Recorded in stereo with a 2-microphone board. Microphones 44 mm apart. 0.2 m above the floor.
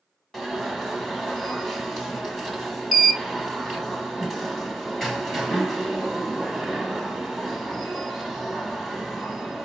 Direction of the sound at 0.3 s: 5° left (ahead or behind).